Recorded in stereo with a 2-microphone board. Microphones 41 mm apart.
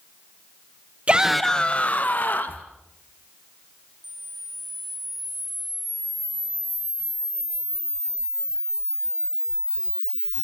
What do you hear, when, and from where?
1.1 s a shout: 35° right (ahead or behind), 0.6 m; by 2.6 s 60° left (ahead or behind), 1.9 m
4.0 s a camera shutter: 65° left (ahead or behind), 0.9 m